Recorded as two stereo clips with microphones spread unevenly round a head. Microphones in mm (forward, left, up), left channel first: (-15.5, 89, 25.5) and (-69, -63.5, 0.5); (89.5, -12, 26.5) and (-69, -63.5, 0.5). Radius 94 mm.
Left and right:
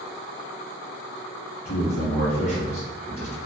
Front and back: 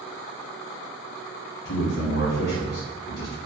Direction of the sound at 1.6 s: 10° left.